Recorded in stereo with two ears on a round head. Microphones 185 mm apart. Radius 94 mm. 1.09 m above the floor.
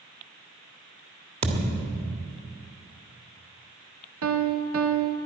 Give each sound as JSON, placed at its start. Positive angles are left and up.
{"t": 1.4, "sound": "a thud", "side_deg": -30, "distance_m": 1.6}
{"t": 4.2, "sound": "a piano", "side_deg": -70, "distance_m": 1.0}